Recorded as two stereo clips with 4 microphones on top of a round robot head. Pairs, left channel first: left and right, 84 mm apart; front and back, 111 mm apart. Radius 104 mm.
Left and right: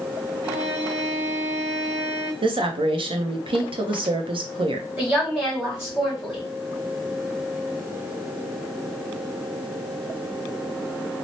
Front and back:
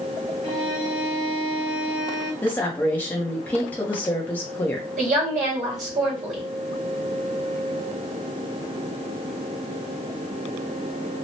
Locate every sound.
0.4 s a violin: 120° right, 0.5 m
2.4 s a woman speaking: 75° right, 0.6 m
5.0 s a woman speaking: 170° right, 1.5 m